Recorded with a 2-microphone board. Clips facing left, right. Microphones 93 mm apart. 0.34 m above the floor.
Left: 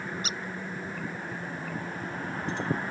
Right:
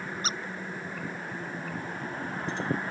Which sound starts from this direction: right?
A squeak, at 0.2 s.